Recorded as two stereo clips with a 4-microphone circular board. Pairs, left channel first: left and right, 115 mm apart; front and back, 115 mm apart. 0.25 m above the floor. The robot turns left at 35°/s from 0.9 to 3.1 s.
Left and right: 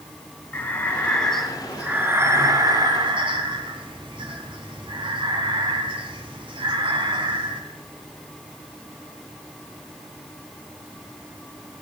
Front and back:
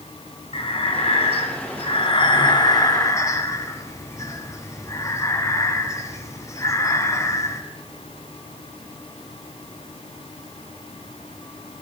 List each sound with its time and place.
0.5 s breathing: 20° left, 1.4 m; by 7.6 s 60° right, 1.4 m